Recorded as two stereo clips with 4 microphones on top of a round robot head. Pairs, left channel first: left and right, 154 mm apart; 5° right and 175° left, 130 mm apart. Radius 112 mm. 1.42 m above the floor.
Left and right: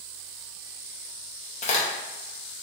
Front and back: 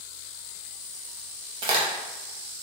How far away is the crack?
About 0.6 m.